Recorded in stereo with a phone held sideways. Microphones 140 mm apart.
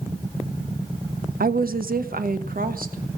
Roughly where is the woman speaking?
Right.